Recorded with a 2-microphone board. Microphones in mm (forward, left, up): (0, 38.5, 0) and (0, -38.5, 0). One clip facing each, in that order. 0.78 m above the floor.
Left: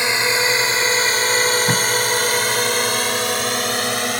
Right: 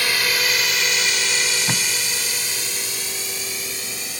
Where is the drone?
25° left (ahead or behind); by 4.2 s 70° left (ahead or behind).